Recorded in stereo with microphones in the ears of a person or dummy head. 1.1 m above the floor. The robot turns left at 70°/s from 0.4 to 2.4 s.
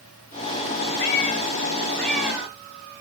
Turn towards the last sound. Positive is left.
turn(degrees=-20)